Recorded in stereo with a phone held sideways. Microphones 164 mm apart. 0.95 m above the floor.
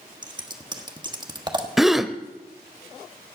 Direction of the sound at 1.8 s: Centre (ahead or behind).